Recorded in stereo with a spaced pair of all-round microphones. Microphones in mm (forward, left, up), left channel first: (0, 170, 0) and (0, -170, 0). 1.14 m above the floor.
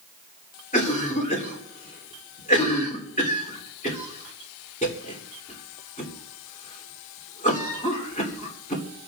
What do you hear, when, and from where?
0.7 s a cough: 25° left (ahead or behind), 3.5 m